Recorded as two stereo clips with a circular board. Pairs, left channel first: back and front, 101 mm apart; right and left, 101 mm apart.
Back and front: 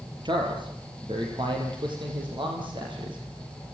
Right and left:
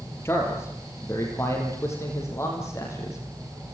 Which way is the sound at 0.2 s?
30° right.